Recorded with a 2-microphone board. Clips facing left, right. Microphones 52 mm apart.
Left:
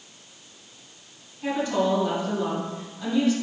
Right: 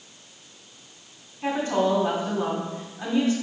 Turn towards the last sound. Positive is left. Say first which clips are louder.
# right 1 dB
turn(degrees=-40)  # may be behind; listen again after turning